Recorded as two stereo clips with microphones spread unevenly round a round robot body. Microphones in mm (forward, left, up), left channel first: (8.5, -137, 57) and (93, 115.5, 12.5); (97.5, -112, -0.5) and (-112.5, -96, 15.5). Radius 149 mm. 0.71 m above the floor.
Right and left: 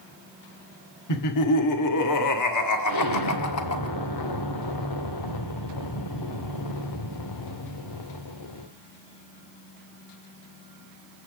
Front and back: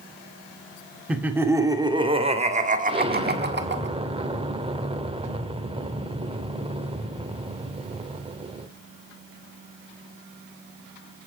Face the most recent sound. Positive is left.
turn(degrees=-120)